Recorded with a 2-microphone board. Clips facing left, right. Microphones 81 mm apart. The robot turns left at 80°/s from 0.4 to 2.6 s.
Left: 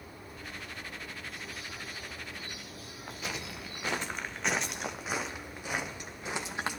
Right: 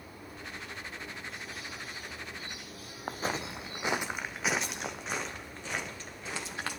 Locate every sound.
3.1 s footsteps: 45° right (ahead or behind), 0.9 m; by 6.8 s 20° left (ahead or behind), 2.5 m